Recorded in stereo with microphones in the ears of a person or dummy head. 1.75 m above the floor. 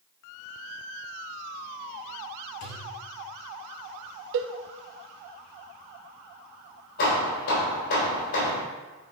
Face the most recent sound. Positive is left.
turn(degrees=60)  # may be behind; listen again after turning